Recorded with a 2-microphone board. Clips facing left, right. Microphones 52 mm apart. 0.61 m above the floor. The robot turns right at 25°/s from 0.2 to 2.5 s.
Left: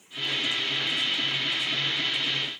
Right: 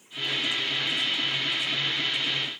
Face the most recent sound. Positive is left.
No sound to turn to.